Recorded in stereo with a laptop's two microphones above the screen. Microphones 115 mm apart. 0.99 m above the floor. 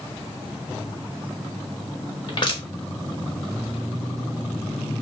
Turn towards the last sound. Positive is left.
turn(degrees=45)  # may be behind; listen again after turning